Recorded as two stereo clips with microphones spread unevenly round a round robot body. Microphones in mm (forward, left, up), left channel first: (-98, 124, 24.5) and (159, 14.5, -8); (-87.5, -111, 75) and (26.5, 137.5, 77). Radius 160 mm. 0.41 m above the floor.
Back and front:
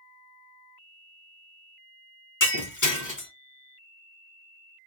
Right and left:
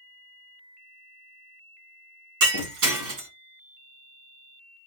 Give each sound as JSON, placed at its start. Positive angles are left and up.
{"t": 2.4, "sound": "breaking glass", "azimuth_deg": 105, "distance_m": 2.5}